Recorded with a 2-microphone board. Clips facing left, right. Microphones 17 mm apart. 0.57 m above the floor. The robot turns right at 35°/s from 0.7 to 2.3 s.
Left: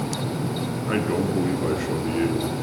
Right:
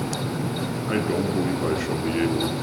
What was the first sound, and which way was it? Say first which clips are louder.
A man speaking: left 1 dB; 5° left (ahead or behind).